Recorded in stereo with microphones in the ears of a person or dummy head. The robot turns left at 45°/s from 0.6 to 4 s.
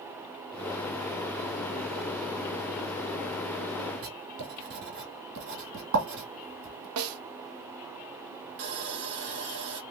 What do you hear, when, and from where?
4.0 s writing: 60° right (ahead or behind), 1.9 m
7.0 s a snare drum: 85° right, 0.6 m
8.6 s sawing: 70° right (ahead or behind), 0.9 m